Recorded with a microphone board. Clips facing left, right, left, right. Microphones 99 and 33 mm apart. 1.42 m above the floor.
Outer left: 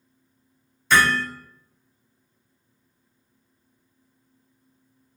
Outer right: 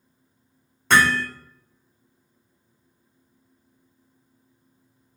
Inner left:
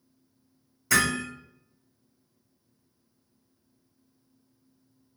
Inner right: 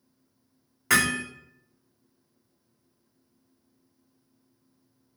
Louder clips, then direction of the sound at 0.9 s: Outer right 1 dB, inner right 1 dB; 65° right (ahead or behind).